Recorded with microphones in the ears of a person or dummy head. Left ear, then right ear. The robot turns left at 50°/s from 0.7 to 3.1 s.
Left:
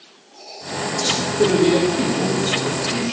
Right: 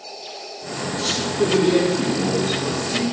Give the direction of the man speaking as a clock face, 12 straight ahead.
6 o'clock.